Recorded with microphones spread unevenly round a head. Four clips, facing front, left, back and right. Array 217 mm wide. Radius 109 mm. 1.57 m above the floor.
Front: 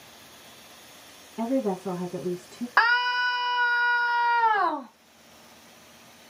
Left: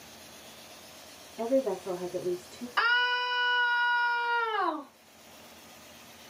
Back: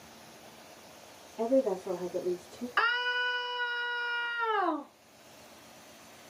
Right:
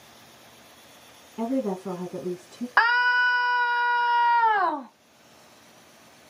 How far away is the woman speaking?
About 1.9 m.